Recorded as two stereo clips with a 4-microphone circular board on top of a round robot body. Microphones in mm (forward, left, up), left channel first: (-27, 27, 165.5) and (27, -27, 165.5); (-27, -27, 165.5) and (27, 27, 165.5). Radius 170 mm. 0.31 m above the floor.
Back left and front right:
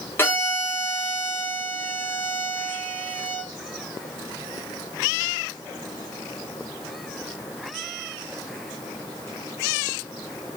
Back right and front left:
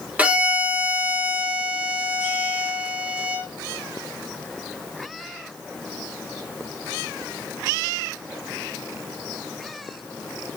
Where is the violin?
105° left, 1.2 m.